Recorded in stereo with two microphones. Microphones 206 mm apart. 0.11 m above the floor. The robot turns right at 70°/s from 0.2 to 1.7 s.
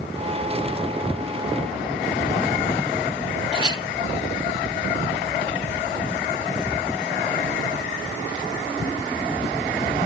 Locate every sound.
3.5 s a clink: 20° right (ahead or behind), 1.0 m